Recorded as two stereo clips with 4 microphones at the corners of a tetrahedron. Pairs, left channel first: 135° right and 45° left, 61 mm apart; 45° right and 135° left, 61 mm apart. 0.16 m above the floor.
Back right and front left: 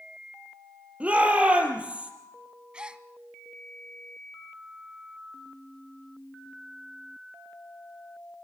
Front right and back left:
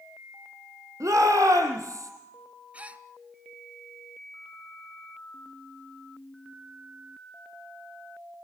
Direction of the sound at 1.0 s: 115° left.